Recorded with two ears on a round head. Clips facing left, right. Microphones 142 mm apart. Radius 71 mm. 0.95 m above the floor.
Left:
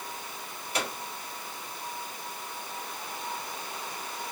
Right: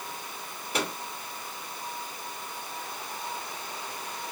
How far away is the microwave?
About 2 m.